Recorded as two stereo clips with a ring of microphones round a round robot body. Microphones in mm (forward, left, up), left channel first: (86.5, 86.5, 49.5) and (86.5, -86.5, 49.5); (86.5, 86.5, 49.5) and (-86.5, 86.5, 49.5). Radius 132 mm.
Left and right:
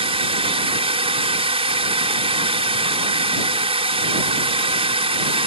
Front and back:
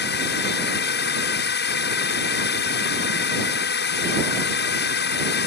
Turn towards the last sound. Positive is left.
turn(degrees=-35)